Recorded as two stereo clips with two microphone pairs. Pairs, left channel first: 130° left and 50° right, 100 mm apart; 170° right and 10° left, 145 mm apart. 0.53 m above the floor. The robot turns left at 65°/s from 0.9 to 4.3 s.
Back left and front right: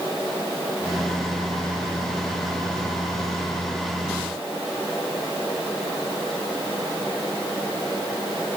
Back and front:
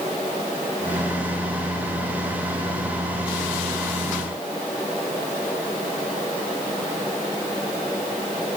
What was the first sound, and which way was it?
Only background noise.